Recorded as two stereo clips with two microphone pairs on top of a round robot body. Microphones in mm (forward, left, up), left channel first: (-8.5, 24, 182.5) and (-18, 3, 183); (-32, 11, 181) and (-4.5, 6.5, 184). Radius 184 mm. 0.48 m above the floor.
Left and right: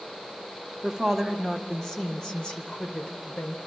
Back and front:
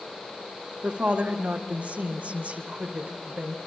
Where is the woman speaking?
25° right, 1.8 m; by 3.6 s 25° left, 3.5 m.